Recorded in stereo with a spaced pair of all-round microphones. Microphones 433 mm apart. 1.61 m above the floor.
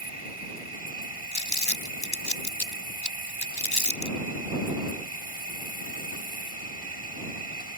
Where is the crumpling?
55° left (ahead or behind).